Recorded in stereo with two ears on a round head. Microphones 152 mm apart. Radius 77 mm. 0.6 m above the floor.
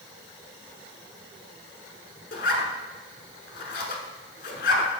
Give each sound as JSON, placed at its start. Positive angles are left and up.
{"t": 2.3, "sound": "a zipper", "side_deg": 55, "distance_m": 1.2}